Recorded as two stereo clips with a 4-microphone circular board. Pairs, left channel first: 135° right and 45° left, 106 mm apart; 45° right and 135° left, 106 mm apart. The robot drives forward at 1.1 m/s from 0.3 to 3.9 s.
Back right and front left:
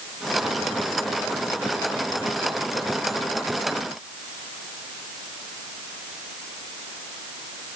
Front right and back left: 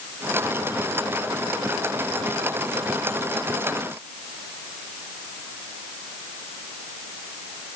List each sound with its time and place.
Only background noise.